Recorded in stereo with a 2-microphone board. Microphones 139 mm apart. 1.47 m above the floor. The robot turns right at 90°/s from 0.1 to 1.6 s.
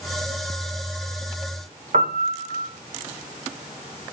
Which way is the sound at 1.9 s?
75° right (ahead or behind).